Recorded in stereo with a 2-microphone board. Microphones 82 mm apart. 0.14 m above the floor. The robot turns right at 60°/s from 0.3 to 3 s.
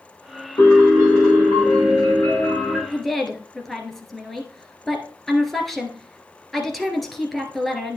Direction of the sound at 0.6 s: 45° left.